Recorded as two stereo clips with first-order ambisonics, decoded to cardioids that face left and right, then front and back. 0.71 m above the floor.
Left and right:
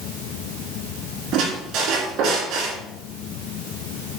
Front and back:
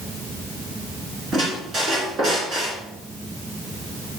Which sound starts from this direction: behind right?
A squeak, at 1.3 s.